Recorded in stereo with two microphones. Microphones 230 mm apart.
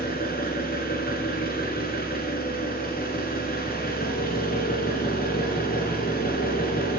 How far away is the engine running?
About 1.8 m.